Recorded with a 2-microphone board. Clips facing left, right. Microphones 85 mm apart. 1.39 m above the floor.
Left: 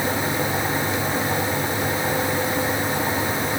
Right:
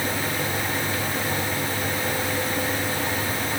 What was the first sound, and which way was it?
Only background noise.